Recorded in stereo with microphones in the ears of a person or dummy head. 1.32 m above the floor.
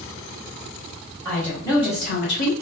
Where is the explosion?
I don't hear an explosion.